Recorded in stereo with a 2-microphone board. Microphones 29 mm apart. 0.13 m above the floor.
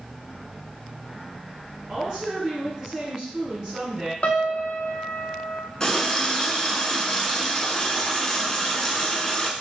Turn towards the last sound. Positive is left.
turn(degrees=20)  # may be behind; listen again after turning